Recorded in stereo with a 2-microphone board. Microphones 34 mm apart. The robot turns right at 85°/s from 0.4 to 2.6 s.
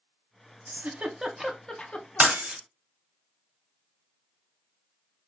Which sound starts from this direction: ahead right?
Breaking glass, at 2.2 s.